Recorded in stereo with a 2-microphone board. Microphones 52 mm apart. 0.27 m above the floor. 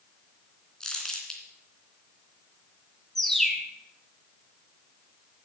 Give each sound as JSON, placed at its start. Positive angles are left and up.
{"t": 0.8, "sound": "crumpling", "side_deg": 10, "distance_m": 2.0}
{"t": 3.1, "sound": "a bird", "side_deg": 5, "distance_m": 1.1}